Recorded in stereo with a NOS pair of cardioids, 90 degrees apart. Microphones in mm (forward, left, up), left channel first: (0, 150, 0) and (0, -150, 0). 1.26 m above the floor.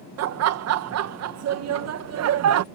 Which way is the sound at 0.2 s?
60° right.